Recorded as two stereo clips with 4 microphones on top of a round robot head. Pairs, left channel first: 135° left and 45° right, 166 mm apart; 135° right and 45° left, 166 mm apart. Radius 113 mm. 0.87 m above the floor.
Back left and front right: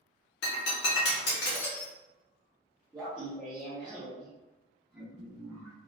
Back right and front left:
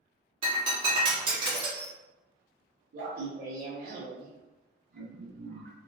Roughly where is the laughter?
Ahead left.